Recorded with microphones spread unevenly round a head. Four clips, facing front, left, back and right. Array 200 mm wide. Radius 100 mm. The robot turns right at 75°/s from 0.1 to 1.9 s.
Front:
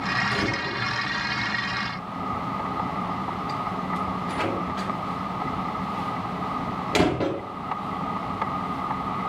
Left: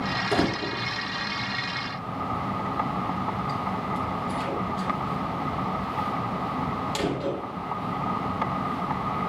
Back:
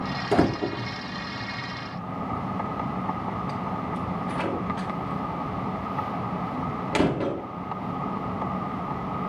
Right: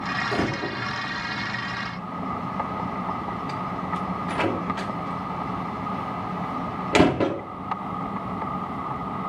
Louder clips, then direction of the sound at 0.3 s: Left 3 dB, back 5 dB; 165° left.